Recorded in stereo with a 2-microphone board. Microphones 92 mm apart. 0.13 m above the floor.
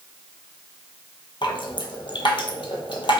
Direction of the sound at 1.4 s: 60° left (ahead or behind).